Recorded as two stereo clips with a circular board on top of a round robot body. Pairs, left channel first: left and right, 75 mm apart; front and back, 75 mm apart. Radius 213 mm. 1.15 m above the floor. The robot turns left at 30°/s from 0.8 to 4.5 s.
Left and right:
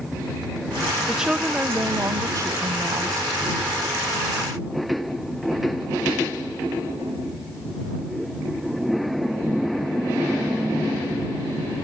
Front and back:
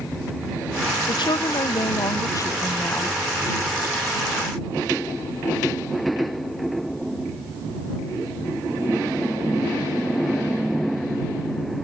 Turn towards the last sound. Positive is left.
turn(degrees=-110)